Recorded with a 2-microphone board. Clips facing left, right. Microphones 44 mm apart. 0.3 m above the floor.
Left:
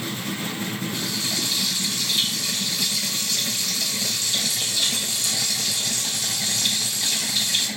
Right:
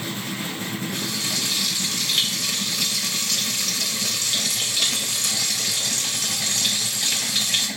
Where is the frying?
55° right (ahead or behind), 1.6 m.